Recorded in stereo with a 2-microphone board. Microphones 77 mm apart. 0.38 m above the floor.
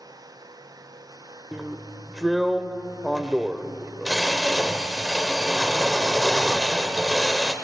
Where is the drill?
5° right (ahead or behind), 0.8 m.